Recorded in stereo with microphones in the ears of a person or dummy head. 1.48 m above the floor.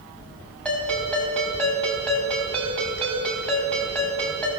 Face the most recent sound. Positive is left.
turn(degrees=5)  # may be behind; listen again after turning